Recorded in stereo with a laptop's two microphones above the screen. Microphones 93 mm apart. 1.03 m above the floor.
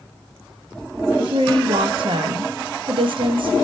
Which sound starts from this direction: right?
A woman speaking, at 1.2 s.